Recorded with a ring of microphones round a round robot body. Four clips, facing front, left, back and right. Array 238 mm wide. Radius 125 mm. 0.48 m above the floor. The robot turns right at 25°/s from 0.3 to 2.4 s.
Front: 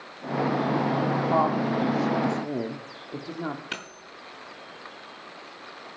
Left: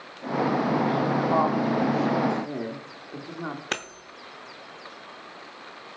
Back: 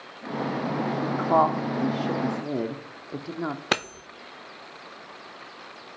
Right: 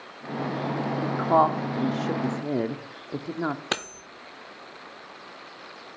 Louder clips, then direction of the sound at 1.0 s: Right 1 dB, back 5 dB; 135° right.